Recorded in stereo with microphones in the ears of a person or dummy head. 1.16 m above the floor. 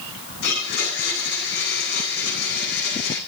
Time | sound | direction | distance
0.4 | a blender | 55° left (ahead or behind) | 8.5 m